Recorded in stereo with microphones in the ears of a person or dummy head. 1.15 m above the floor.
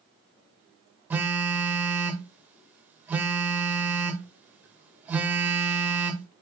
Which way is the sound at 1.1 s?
10° right (ahead or behind).